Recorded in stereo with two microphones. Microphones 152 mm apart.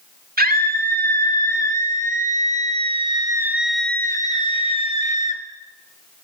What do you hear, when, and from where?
0.4 s a scream: 75° right (ahead or behind), 2 m; by 5.4 s 55° left (ahead or behind), 1.3 m